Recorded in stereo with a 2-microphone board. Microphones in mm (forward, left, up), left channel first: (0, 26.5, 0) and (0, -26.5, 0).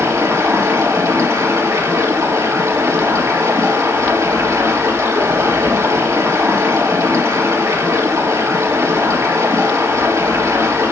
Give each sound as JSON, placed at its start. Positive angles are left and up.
{"t": 0.0, "sound": "running water", "side_deg": -70, "distance_m": 2.5}